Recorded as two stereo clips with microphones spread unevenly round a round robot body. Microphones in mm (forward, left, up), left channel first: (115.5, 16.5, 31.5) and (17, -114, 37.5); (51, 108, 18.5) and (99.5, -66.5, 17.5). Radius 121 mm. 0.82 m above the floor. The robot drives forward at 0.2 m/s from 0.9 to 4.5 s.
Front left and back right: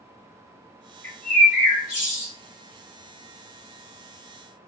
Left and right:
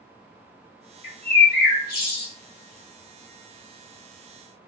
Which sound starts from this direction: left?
A bird, at 1.0 s.